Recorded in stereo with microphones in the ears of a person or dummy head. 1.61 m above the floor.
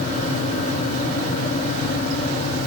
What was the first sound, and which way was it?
Only background noise.